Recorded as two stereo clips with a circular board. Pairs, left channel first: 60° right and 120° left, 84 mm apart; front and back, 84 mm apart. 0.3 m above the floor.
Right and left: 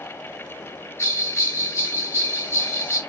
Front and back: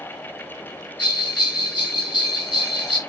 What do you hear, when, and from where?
1.0 s a bell: 10° right, 1.3 m